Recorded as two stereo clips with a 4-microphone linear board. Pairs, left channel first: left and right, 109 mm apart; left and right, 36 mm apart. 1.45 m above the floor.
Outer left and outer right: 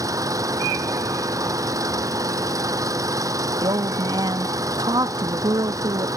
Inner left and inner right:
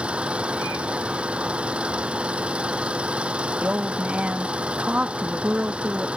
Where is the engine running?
30° right (ahead or behind).